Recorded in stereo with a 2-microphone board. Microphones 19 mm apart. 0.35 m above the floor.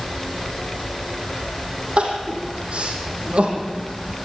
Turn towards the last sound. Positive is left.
turn(degrees=-75)  # may be behind; listen again after turning